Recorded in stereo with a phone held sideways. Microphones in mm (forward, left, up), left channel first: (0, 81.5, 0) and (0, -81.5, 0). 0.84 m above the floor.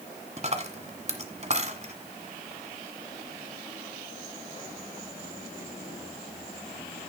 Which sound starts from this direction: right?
A dropped coin, at 0.4 s.